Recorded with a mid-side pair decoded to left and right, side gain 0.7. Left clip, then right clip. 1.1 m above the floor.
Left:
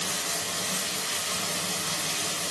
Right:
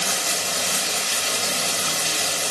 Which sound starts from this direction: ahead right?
Running water, at 0.0 s.